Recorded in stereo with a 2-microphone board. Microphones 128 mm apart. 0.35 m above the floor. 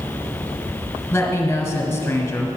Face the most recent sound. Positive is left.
turn(degrees=20)  # may be behind; listen again after turning